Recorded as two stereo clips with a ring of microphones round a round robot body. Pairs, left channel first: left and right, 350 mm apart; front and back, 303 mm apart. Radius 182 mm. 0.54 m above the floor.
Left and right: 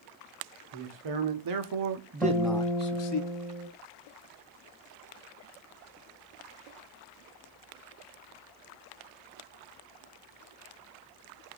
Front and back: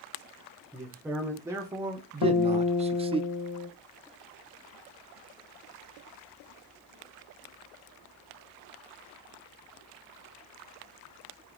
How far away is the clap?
I don't hear a clap.